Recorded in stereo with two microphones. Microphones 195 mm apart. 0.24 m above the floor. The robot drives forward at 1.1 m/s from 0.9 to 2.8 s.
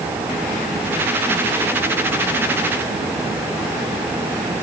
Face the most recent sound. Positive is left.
No sound to turn to.